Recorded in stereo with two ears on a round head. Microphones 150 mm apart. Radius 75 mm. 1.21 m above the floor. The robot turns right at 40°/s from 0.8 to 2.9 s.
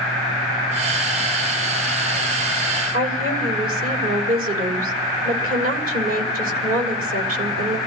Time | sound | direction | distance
2.9 | a woman speaking | 55° right (ahead or behind) | 6.5 m